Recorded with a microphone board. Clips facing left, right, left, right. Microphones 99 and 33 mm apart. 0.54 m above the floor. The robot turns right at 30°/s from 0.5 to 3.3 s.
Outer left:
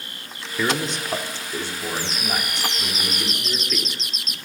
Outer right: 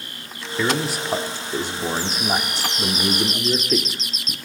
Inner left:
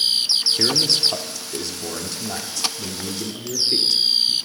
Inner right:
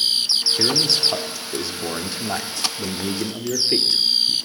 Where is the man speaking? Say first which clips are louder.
Outer right 1 dB, even; 175° right, 1.3 m; by 4.4 s 95° right, 1.3 m.